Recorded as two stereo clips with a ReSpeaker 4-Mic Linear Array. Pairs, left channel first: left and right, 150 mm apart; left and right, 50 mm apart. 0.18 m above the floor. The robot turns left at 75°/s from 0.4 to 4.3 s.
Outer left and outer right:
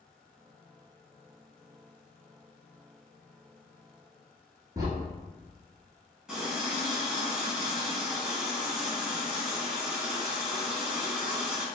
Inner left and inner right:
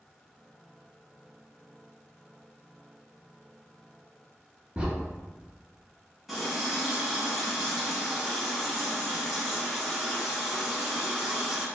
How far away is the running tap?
About 0.8 m.